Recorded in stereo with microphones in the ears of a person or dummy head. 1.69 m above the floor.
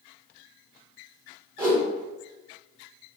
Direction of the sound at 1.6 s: 15° right (ahead or behind).